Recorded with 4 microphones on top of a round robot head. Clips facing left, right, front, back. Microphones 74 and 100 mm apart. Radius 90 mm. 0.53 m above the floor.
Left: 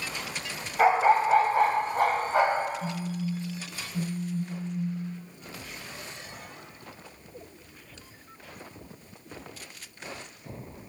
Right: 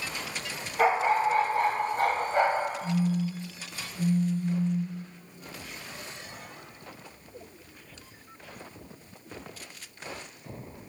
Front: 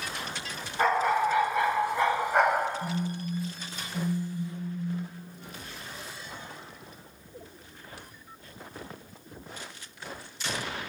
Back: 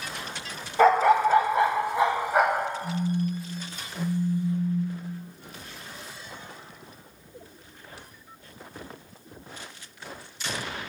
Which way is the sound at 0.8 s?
175° left.